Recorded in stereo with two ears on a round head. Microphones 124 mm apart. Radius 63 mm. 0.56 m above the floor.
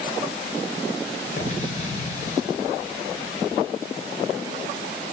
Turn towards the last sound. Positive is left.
turn(degrees=55)  # may be behind; listen again after turning